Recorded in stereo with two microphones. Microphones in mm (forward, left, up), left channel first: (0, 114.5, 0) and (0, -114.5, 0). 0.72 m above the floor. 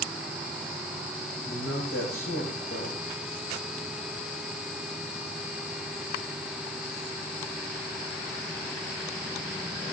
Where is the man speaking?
70° left (ahead or behind), 6.5 m.